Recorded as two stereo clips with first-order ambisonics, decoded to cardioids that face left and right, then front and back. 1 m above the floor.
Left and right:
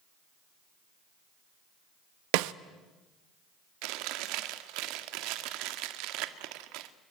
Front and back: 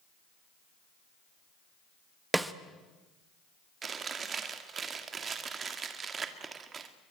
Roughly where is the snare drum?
Right.